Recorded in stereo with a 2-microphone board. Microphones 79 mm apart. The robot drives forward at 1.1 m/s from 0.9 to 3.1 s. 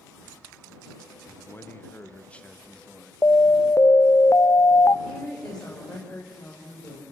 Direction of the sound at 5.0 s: 10° left (ahead or behind).